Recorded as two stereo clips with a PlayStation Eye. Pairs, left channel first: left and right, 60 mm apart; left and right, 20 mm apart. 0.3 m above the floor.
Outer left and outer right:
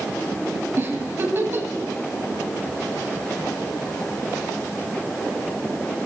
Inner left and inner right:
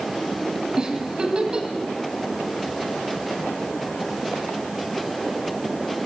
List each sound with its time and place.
0.8 s a giggle: 40° right (ahead or behind), 1.6 m